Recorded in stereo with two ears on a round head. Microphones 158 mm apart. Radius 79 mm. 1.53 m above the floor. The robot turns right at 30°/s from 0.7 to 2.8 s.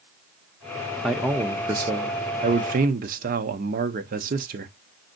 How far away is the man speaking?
About 0.6 m.